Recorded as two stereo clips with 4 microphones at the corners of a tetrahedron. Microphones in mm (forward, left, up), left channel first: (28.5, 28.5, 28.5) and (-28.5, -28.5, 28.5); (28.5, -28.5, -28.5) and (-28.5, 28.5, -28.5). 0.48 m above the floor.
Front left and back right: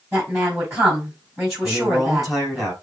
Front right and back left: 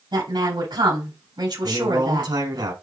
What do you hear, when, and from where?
0.1 s a woman speaking: 140° left, 4.5 m
1.6 s a man speaking: 140° left, 3.5 m